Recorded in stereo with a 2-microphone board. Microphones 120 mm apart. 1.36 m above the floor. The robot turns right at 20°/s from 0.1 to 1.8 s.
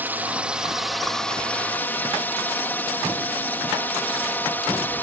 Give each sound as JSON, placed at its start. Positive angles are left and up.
{"t": 0.0, "sound": "a drone", "azimuth_deg": -15}